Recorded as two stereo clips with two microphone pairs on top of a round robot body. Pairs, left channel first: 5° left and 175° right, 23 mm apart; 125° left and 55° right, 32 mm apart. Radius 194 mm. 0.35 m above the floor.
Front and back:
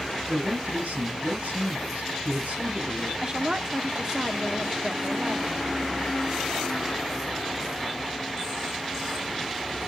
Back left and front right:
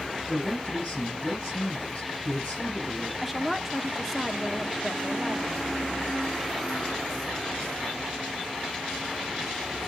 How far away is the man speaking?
About 5 m.